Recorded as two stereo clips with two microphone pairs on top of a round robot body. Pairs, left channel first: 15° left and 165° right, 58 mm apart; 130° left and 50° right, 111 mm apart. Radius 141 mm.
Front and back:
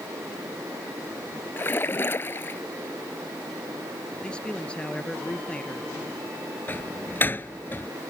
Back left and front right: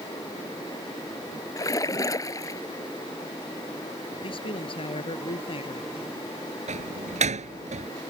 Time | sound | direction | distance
1.6 | a splash | 65° left | ?
4.2 | a man speaking | 85° left | ?
6.7 | a door slam | 45° right | ?